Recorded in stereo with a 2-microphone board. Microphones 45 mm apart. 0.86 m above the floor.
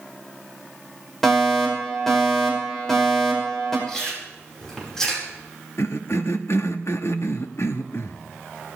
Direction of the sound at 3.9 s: 10° left (ahead or behind).